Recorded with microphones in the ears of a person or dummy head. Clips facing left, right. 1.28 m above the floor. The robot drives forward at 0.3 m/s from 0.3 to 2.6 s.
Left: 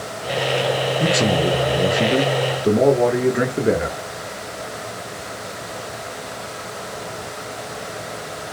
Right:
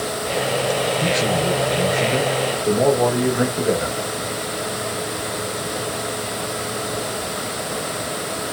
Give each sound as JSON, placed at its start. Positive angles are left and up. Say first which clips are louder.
{"t": 1.0, "sound": "a man speaking", "louder": "left 2 dB", "side_deg": 40, "distance_m": 1.0}